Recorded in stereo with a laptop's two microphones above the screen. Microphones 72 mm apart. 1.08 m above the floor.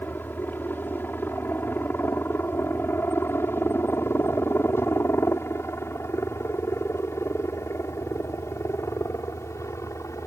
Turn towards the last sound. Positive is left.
turn(degrees=45)  # may be behind; listen again after turning